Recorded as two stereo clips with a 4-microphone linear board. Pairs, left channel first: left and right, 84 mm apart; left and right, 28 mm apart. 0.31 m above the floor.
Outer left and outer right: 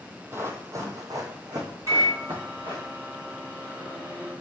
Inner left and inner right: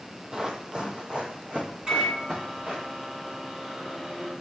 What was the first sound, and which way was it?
Running footsteps, 30° right (ahead or behind).